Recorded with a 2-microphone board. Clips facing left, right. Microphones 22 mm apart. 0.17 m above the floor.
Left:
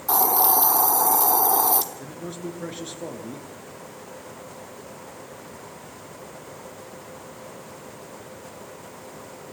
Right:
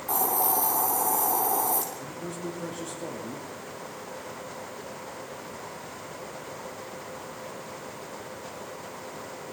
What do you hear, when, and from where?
0.1 s a hiss: 65° left (ahead or behind), 1.8 m
2.0 s a man speaking: 40° left (ahead or behind), 3 m